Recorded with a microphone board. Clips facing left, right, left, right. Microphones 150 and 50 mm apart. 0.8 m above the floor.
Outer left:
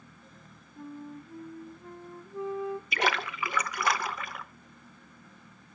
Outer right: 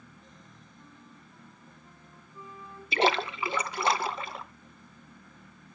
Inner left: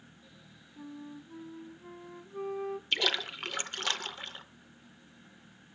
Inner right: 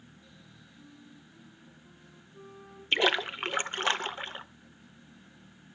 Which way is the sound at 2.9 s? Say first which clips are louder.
Outer right 8 dB, inner right 7 dB; 30° right (ahead or behind).